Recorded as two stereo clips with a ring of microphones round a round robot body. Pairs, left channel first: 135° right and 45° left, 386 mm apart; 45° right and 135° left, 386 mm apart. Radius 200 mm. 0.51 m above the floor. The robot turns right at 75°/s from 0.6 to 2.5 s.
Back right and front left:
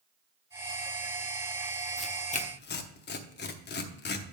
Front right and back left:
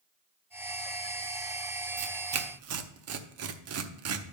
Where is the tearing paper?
130° left, 0.9 m; by 4.3 s 170° left, 0.9 m.